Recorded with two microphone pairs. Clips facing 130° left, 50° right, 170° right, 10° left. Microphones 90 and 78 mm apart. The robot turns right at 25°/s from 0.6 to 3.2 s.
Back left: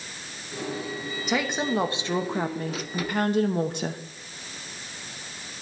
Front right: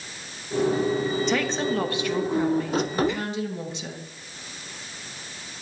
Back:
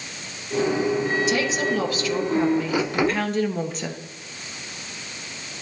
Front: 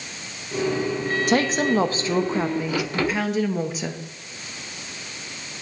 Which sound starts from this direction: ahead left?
A woman speaking, at 1.3 s.